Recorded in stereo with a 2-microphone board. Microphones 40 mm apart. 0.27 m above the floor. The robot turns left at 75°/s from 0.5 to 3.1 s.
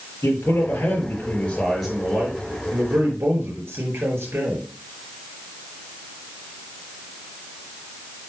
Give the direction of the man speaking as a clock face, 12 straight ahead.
8 o'clock.